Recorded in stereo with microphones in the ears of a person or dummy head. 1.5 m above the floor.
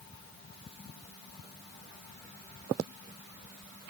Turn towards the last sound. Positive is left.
No sound to turn to.